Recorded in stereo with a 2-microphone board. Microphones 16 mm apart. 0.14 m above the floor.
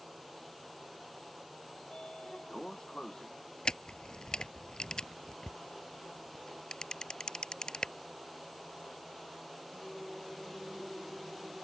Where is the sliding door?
60° left (ahead or behind).